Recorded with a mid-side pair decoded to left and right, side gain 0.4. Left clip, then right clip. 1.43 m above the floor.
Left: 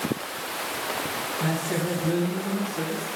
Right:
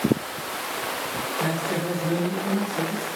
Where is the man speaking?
5° left, 2.5 m; by 3.1 s 20° right, 3 m.